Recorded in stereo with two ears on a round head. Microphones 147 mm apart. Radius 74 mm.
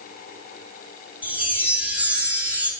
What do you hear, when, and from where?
1.2 s a chime: 10° right (ahead or behind), 0.8 m